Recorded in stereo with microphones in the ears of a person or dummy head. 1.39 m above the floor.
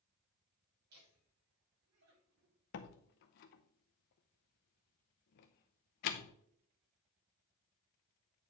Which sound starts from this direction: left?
A door slam, at 2.7 s.